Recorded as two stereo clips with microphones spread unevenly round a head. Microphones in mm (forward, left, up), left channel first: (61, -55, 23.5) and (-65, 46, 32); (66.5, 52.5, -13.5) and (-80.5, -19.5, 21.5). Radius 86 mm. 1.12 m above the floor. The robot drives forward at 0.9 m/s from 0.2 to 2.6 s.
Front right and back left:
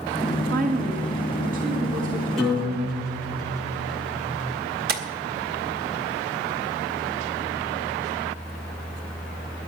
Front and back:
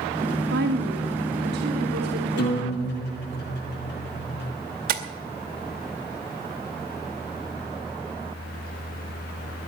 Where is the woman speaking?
Straight behind, 1.7 m.